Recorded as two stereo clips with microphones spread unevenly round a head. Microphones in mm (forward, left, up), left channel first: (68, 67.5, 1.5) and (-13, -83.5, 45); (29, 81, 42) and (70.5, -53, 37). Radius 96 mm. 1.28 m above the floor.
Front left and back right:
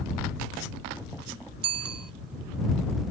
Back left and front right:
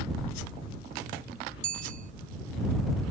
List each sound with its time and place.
1.6 s a bicycle bell: 125° right